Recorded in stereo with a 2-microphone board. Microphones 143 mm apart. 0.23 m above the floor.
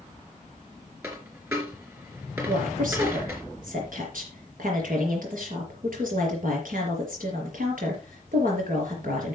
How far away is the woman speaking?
About 5 m.